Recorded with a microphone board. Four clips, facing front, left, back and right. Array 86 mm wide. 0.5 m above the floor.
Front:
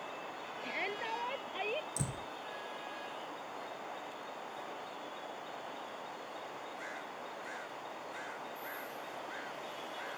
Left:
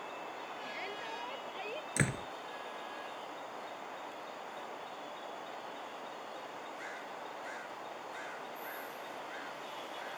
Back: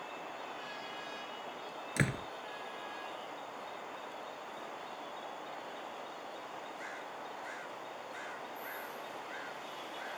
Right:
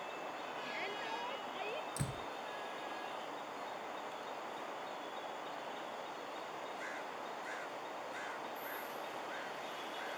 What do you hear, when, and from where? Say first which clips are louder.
0.6 s a shout: even, front 5 dB; 5° left; by 1.9 s 10° left
2.0 s a door slam: left 7 dB, back 6 dB; 140° left